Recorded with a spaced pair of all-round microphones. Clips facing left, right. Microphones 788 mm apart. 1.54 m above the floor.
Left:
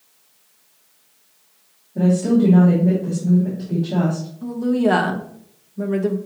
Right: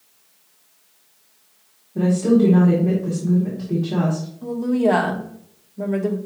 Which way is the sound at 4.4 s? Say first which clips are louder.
Left 1 dB; 45° left (ahead or behind).